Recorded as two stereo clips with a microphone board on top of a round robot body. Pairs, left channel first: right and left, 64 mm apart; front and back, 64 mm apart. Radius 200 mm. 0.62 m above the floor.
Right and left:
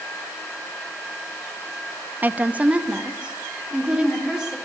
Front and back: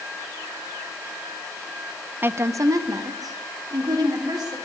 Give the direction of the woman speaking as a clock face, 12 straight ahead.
7 o'clock.